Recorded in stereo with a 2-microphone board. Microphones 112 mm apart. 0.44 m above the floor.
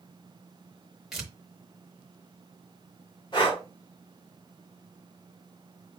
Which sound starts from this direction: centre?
Tearing paper, at 1.1 s.